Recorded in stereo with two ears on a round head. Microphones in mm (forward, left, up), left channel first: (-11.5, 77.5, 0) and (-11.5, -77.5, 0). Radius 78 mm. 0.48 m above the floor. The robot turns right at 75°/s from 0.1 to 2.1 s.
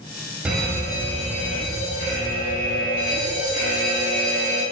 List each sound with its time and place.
0.5 s a fire alarm: 10° right, 5 m; by 4.6 s 115° left, 5 m